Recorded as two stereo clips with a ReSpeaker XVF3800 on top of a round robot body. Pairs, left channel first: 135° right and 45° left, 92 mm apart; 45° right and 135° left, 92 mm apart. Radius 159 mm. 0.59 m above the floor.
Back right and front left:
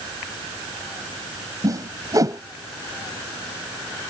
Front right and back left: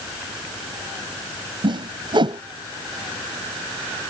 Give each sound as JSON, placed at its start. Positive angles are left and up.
{"t": 1.6, "sound": "a whoosh", "azimuth_deg": 100}